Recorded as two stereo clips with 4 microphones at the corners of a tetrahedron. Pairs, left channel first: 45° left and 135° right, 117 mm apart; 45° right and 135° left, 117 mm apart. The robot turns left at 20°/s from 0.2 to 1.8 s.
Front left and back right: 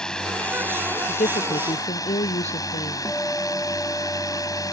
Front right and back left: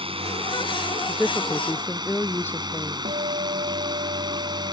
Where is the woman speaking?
45° left; by 3.0 s 30° left.